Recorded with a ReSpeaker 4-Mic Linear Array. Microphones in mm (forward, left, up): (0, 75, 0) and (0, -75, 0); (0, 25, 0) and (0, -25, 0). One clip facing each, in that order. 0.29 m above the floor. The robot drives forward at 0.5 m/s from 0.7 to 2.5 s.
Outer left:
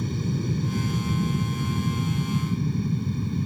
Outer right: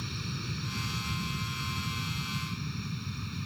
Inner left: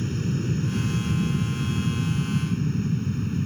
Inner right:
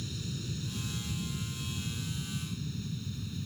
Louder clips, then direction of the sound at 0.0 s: Outer left 12 dB, inner left 12 dB; 45° left (ahead or behind).